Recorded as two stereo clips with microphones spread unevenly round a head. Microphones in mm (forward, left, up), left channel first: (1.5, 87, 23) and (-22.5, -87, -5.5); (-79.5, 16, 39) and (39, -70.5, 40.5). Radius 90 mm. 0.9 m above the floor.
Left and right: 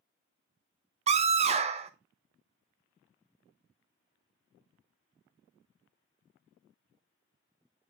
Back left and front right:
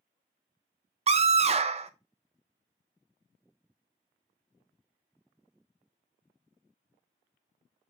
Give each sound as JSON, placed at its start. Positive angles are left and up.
{"t": 1.1, "sound": "a scream", "azimuth_deg": -65, "distance_m": 0.5}